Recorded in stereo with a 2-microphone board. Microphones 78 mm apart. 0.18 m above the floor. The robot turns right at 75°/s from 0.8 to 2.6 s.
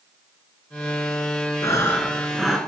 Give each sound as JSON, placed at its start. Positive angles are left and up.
{"t": 1.6, "sound": "breathing", "azimuth_deg": 120, "distance_m": 0.9}